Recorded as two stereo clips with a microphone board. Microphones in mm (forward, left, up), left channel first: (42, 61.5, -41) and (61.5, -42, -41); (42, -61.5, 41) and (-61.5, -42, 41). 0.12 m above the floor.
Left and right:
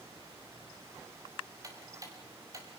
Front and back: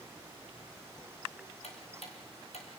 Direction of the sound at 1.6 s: 25° right.